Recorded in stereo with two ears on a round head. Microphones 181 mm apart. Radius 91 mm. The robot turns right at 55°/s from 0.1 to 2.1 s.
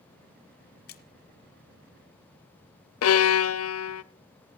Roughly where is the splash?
Left.